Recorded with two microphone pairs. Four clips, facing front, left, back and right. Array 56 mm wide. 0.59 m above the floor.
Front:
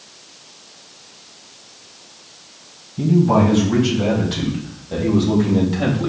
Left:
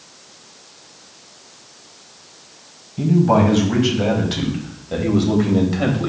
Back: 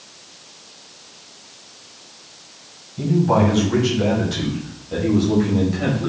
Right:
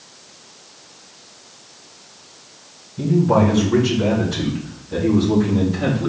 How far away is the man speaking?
About 3.5 m.